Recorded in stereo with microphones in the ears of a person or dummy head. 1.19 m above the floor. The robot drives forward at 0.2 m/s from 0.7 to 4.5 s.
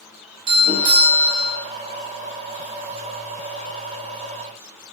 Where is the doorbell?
20° right (ahead or behind), 0.8 m.